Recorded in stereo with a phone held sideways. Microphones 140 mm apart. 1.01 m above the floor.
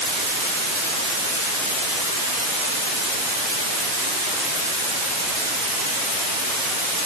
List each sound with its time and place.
Only background noise.